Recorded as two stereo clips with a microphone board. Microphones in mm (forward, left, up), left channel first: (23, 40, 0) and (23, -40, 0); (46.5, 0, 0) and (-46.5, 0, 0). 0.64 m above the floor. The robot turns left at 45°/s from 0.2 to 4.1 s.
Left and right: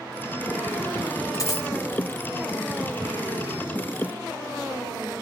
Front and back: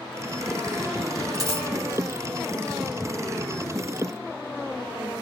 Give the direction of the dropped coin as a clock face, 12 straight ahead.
7 o'clock.